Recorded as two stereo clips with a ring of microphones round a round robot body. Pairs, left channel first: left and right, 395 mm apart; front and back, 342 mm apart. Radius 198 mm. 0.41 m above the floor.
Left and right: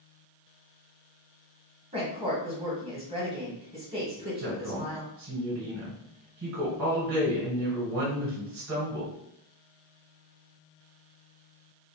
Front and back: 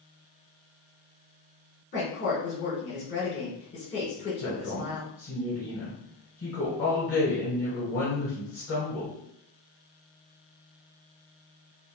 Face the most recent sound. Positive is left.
turn(degrees=-50)